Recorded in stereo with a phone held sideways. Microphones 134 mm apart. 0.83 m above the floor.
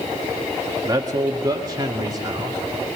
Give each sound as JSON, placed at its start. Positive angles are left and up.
{"t": 0.8, "sound": "a man speaking", "side_deg": -25, "distance_m": 1.8}